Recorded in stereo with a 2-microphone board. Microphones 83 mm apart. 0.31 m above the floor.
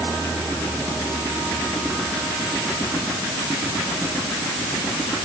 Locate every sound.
Only background noise.